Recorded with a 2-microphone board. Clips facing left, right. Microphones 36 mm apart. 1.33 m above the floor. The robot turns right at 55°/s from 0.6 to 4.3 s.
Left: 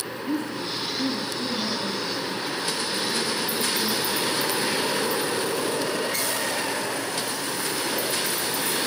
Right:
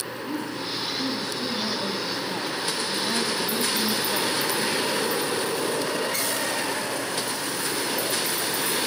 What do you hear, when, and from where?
0.3 s a woman speaking: 125° left, 3 m; by 5.6 s 30° right, 3 m